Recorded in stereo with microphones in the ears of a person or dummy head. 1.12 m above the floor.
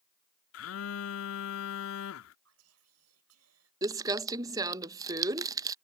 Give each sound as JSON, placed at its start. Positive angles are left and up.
{"t": 0.5, "sound": "a phone buzzing", "side_deg": 65}
{"t": 2.5, "sound": "whispering", "side_deg": -85}
{"t": 3.8, "sound": "crumpling", "side_deg": -15}